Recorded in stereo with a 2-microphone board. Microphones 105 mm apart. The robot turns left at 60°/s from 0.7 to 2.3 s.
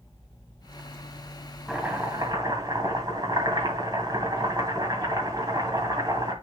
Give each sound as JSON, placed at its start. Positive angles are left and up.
{"t": 1.7, "sound": "chopping", "azimuth_deg": -5, "distance_m": 2.0}